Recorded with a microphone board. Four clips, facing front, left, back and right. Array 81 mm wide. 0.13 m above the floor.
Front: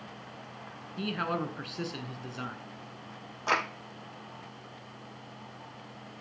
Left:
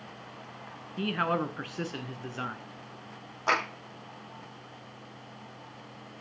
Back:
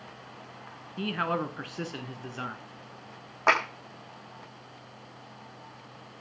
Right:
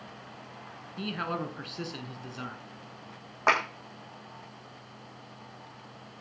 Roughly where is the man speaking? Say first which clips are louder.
Left 5 dB, back 2 dB; behind left.